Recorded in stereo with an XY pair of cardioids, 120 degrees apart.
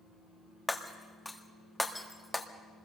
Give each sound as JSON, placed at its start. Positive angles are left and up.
{"t": 0.7, "sound": "breaking glass", "azimuth_deg": 10, "distance_m": 1.7}